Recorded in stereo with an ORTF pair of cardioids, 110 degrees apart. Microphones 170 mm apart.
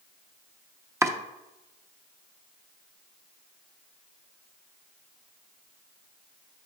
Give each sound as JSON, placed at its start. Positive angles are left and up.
{"t": 1.0, "sound": "chopping", "azimuth_deg": -15, "distance_m": 0.8}